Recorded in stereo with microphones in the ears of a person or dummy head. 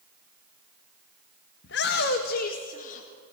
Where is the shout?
60° left (ahead or behind), 1.4 m; by 3.1 s 35° left (ahead or behind), 1.8 m.